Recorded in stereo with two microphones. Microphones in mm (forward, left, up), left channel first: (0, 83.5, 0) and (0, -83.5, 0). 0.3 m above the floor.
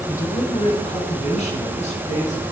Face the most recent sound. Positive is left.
turn(degrees=45)  # may be behind; listen again after turning